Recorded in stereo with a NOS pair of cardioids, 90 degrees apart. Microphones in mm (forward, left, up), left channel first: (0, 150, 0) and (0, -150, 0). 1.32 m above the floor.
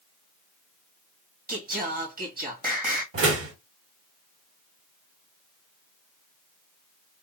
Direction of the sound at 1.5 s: 30° right.